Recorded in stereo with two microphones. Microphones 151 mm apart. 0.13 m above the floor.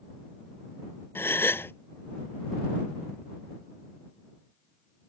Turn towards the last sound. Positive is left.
turn(degrees=15)  # may be behind; listen again after turning